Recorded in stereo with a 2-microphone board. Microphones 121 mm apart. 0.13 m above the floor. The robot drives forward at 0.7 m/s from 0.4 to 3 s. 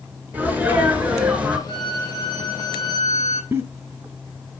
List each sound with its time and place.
0.3 s a sneeze: 15° right (ahead or behind), 1.9 m; by 1.6 s 10° right (ahead or behind), 2.5 m
1.7 s a violin: 40° left (ahead or behind), 3.5 m; by 3.4 s 30° left (ahead or behind), 4 m
3.5 s a giggle: 25° right (ahead or behind), 1.0 m